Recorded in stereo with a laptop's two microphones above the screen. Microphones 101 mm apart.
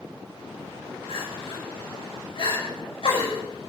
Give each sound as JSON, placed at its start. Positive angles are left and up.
{"t": 1.1, "sound": "crying", "side_deg": 55, "distance_m": 5.5}